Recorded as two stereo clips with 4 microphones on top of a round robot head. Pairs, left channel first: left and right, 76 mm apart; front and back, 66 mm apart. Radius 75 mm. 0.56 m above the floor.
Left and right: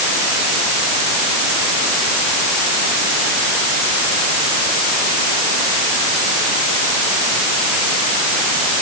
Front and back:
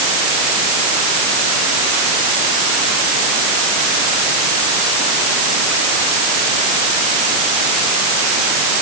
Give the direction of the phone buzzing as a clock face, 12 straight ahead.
No phone buzzing in this recording.